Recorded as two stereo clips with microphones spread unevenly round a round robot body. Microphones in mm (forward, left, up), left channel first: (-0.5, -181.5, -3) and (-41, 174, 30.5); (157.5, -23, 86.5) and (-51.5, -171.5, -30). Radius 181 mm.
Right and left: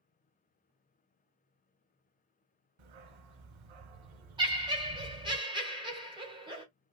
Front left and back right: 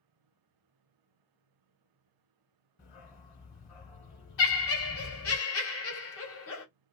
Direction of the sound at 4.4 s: 25° left.